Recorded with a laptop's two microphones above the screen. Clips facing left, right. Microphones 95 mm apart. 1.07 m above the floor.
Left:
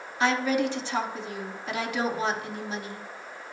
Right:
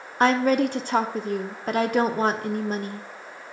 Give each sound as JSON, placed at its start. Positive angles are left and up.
{"t": 0.2, "sound": "a woman speaking", "side_deg": -45, "distance_m": 0.8}